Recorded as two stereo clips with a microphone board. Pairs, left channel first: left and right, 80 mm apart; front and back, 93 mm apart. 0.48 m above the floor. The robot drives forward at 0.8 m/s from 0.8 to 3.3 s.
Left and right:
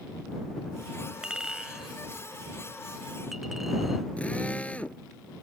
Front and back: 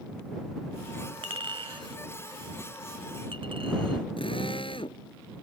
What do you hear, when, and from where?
1.2 s a clink: 165° right; by 4.0 s 175° right
4.2 s a drill: 15° left